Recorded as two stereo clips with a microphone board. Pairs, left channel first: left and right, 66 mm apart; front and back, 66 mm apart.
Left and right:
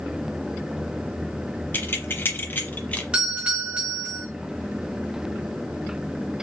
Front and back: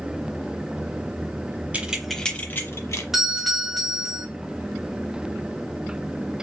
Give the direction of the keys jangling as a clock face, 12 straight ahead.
8 o'clock.